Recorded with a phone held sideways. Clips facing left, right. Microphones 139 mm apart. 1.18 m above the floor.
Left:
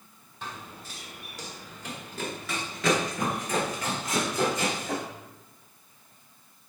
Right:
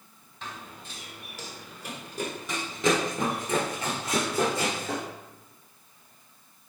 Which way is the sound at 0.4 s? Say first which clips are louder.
Left 1 dB; 10° left (ahead or behind).